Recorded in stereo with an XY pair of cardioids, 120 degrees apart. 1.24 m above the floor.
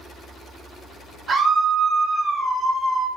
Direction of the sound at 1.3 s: 40° right.